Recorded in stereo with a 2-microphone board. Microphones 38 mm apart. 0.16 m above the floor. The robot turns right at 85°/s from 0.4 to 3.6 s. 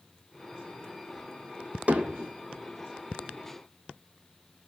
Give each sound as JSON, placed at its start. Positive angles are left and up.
{"t": 1.9, "sound": "hammering", "side_deg": -35, "distance_m": 0.8}